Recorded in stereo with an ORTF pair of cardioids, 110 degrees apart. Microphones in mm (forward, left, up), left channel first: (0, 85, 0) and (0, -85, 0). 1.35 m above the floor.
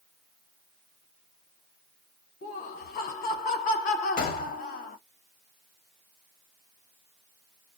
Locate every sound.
2.4 s laughter: 60° left, 1.2 m
4.2 s a gunshot: 60° left, 0.8 m